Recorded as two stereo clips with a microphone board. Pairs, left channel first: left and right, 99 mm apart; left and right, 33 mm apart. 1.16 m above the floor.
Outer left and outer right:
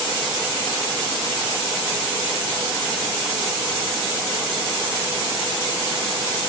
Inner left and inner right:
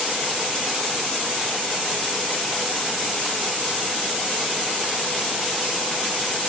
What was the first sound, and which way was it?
Only background noise.